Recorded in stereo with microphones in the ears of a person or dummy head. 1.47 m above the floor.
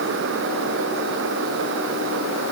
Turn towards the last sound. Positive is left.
No sound to turn to.